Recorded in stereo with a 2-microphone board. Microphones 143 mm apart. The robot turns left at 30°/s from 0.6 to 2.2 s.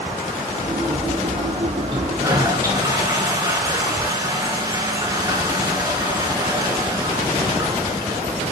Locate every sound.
1.9 s a toilet flushing: 35° right (ahead or behind), 2.5 m; by 8.2 s 25° right (ahead or behind), 2.5 m